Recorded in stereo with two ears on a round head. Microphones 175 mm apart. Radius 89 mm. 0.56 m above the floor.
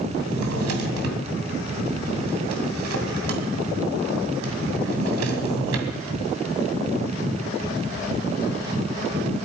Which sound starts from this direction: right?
A drawer, at 0.3 s.